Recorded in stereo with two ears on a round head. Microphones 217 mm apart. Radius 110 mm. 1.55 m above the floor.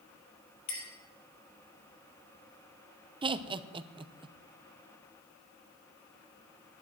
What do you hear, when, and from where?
0.7 s a clink: 75° left (ahead or behind), 4.5 m
3.2 s laughter: 20° right (ahead or behind), 0.7 m